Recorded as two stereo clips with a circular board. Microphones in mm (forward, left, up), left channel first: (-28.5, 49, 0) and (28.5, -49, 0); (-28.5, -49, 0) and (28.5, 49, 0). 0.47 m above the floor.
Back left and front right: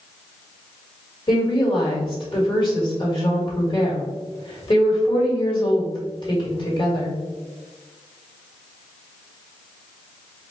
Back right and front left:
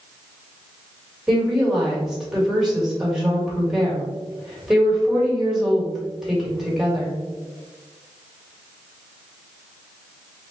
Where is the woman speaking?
145° left, 1.9 m.